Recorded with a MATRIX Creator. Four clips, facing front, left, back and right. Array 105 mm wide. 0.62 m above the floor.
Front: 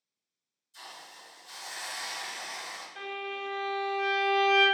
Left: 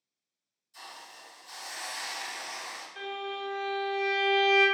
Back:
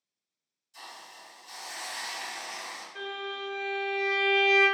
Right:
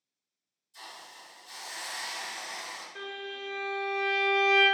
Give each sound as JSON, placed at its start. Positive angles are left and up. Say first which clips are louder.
{"t": 0.7, "sound": "a hiss", "louder": "even, back 1 dB", "azimuth_deg": 150, "distance_m": 1.4}
{"t": 3.0, "sound": "a violin", "louder": "left 5 dB, even", "azimuth_deg": -130, "distance_m": 1.3}